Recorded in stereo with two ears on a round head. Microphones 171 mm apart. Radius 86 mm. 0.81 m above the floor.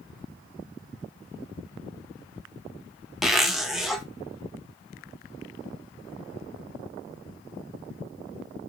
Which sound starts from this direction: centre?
A zipper, at 3.2 s.